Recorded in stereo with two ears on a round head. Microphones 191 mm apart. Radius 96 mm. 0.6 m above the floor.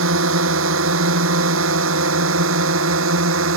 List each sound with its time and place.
0.0 s a drone: 60° right (ahead or behind)